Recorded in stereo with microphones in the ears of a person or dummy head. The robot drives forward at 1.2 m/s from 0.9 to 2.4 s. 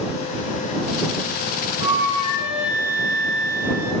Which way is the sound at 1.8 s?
30° left (ahead or behind).